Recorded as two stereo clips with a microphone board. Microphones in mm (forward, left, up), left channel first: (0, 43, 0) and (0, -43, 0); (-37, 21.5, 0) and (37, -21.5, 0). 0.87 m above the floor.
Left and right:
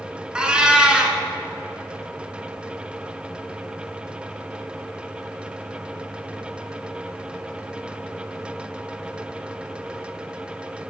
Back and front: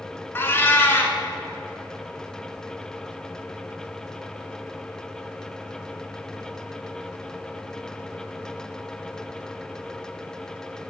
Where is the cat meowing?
165° right, 1.0 m.